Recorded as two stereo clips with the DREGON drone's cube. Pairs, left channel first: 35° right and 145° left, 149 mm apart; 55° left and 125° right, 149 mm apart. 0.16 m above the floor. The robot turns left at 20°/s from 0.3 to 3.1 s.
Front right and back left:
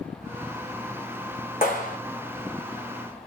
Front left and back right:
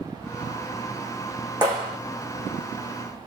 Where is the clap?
60° right, 5 m; by 2.0 s 70° right, 5 m.